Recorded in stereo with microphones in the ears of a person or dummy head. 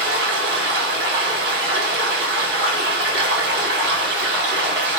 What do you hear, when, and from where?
0.0 s running water: 70° right (ahead or behind), 1.7 m